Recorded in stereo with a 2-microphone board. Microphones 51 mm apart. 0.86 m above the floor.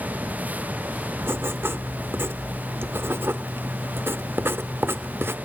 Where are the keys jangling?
I don't hear keys jangling.